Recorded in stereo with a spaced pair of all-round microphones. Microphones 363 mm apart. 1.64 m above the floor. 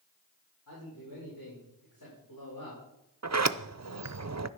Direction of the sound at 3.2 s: 45° right (ahead or behind).